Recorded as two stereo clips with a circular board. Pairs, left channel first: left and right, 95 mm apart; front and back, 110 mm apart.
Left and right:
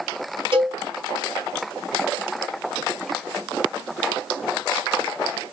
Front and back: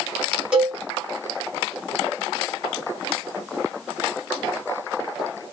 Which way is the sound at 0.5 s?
100° right.